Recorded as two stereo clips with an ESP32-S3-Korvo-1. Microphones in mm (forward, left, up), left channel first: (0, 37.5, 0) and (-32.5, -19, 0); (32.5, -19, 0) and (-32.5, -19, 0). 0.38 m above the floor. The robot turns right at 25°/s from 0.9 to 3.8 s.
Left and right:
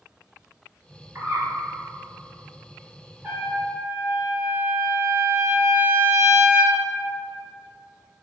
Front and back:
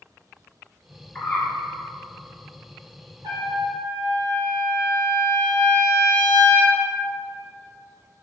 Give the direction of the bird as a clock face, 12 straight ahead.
2 o'clock.